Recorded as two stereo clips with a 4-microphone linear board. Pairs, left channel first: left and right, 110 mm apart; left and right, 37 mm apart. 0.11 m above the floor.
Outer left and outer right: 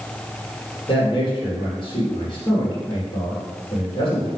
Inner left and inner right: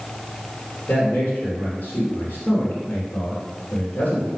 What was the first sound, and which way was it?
A man speaking, 45° left (ahead or behind).